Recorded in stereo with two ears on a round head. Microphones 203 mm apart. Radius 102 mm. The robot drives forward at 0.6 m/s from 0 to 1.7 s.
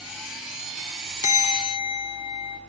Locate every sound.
1.2 s a bell: 30° left (ahead or behind), 0.6 m; by 2.6 s 25° left (ahead or behind), 0.8 m